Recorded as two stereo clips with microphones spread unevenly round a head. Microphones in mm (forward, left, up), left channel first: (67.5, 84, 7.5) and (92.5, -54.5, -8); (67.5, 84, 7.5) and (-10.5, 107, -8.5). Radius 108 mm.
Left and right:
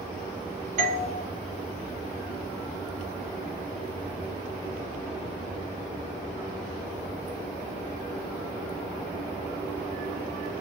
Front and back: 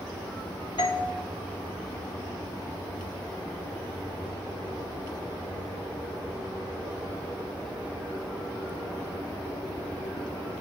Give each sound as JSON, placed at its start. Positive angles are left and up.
{"t": 0.8, "sound": "a doorbell", "azimuth_deg": -70, "distance_m": 2.0}